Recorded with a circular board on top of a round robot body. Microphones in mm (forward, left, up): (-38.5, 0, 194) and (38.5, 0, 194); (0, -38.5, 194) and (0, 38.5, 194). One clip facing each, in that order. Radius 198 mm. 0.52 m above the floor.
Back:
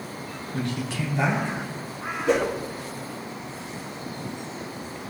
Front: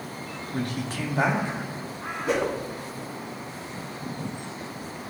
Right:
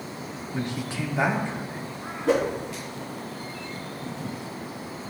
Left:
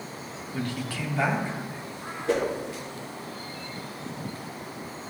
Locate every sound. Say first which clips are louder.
0.5 s a man speaking: back 1 dB, right 1 dB; 25° right, 1.7 m
2.3 s a whoosh: back 3 dB, right 3 dB; 85° right, 1.5 m